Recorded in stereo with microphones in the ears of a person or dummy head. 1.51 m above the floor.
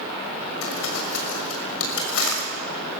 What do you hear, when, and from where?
0.6 s crumpling: 85° left, 6.5 m